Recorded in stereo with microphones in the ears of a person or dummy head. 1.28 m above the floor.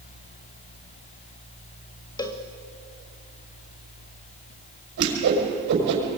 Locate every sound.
2.2 s a cowbell: 20° left (ahead or behind), 1.1 m
5.0 s a whoosh: 60° right (ahead or behind), 5.5 m